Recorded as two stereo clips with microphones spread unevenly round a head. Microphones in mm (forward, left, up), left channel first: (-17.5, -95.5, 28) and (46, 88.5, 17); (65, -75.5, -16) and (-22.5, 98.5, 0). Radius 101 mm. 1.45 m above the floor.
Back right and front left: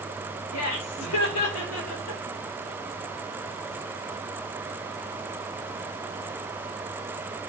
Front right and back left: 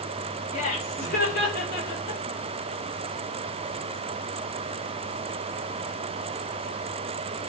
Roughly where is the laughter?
Behind right.